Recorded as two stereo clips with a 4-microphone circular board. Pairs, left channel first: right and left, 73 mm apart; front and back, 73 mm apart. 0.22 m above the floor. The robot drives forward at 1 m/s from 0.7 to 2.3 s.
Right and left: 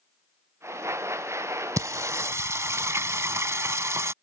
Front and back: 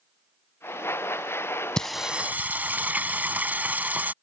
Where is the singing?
75° left; by 4.1 s 120° left.